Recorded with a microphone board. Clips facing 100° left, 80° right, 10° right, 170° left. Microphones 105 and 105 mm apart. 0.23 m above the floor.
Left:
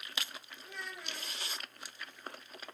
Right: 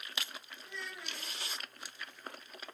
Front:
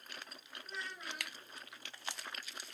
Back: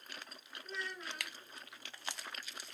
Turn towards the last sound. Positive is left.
turn(degrees=65)